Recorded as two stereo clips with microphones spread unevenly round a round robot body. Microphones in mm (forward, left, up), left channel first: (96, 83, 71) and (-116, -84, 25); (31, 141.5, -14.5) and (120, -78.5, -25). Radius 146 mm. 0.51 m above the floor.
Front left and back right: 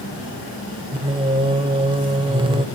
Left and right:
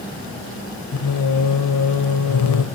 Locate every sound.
0.9 s singing: 150° left, 1.0 m